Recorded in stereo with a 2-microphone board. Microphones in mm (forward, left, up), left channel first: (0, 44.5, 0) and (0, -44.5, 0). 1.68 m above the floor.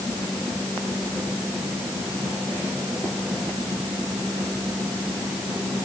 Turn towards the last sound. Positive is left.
No sound to turn to.